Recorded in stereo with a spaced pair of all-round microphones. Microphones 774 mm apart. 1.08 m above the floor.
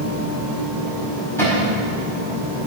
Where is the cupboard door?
5° left (ahead or behind), 5 m.